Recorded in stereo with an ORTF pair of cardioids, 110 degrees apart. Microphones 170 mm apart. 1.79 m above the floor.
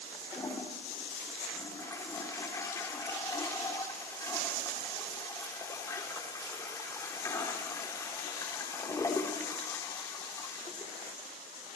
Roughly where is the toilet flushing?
Ahead.